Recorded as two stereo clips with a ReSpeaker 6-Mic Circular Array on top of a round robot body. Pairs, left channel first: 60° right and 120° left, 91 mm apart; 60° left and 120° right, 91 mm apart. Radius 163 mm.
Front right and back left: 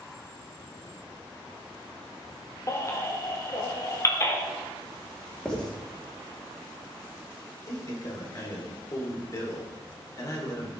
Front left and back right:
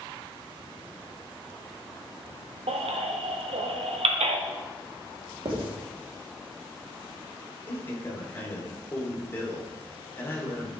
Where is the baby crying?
120° right, 1.4 m.